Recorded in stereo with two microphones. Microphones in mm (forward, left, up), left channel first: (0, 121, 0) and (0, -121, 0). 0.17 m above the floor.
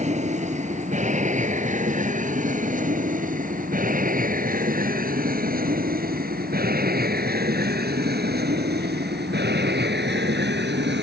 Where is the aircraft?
30° right (ahead or behind); by 11.0 s 50° right (ahead or behind).